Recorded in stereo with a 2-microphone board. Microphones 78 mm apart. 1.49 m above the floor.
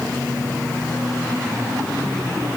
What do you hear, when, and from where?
Only background noise.